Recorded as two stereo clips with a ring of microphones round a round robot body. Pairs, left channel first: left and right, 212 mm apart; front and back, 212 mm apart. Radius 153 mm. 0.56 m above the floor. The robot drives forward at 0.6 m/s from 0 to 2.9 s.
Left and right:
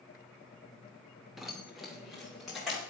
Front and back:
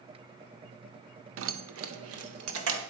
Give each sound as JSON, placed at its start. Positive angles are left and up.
{"t": 1.4, "sound": "keys jangling", "azimuth_deg": 180, "distance_m": 0.7}